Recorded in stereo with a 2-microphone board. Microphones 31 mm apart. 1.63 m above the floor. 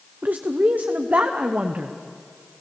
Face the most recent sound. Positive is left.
turn(degrees=-65)  # may be behind; listen again after turning